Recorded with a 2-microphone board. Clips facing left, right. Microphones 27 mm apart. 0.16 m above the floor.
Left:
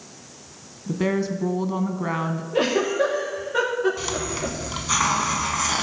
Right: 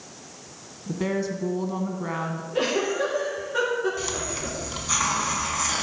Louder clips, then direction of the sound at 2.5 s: Left 3 dB; 15° left (ahead or behind).